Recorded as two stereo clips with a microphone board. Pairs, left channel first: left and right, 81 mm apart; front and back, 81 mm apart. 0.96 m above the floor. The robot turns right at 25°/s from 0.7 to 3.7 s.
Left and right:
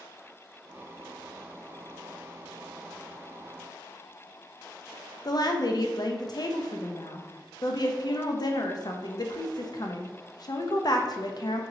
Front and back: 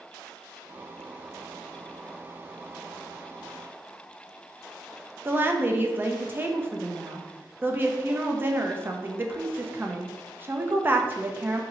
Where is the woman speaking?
120° left, 0.5 m.